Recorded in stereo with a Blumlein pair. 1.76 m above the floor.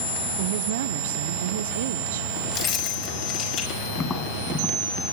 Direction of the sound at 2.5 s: 35° left.